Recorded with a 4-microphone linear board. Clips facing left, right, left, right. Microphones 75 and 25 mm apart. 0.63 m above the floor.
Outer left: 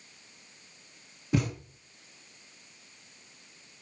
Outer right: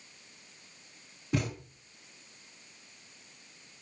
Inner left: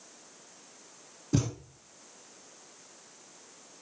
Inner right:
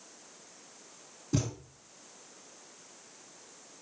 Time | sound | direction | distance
1.3 | a thud | 5° left (ahead or behind) | 5 m